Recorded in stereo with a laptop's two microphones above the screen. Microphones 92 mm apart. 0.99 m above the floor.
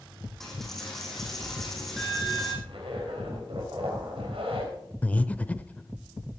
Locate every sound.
0.4 s a dropped coin: 5° left (ahead or behind), 5 m
2.6 s a zipper: 80° right, 3.5 m
5.0 s breathing: 15° left (ahead or behind), 0.7 m